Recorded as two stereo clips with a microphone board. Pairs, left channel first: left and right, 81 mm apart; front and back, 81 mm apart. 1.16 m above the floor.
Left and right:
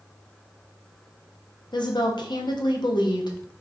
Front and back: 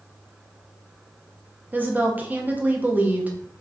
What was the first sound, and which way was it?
A woman speaking, 110° left.